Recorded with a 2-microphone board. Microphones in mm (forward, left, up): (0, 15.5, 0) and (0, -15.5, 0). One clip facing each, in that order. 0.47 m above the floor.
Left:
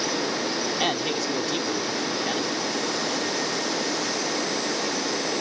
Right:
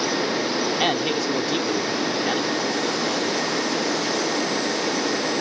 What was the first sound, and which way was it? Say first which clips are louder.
A man speaking: right 2 dB; 15° right (ahead or behind).